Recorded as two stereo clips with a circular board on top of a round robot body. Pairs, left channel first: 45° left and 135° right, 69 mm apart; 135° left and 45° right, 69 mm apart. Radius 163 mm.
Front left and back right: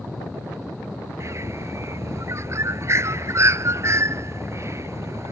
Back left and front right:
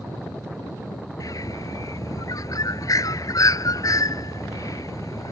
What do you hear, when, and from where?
1.2 s a bird: 175° left